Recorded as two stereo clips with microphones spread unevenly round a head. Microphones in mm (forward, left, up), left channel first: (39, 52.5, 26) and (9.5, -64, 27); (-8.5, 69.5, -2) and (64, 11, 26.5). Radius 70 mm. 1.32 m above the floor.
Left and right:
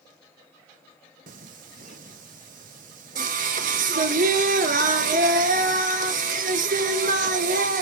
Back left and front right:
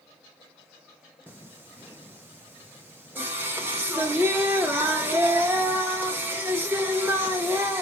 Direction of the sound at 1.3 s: 105° right.